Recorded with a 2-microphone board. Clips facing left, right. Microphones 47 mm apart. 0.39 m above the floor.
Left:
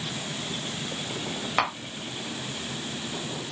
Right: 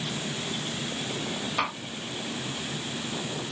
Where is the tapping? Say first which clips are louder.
Left 4 dB; 50° left (ahead or behind), 1.9 m.